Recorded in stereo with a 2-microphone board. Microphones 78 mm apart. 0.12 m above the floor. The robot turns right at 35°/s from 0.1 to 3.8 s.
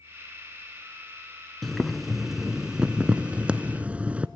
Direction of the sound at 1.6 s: Centre (ahead or behind).